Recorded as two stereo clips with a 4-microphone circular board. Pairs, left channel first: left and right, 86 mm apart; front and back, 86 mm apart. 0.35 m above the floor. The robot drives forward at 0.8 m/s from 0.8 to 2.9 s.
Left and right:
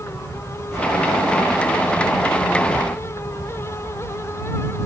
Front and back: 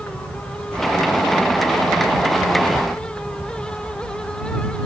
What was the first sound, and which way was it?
An insect, 60° left.